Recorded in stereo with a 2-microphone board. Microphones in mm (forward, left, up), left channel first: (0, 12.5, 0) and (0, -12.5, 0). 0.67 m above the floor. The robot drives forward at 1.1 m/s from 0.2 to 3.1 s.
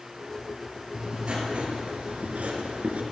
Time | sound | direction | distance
0.9 | writing | 35° right (ahead or behind) | 2.5 m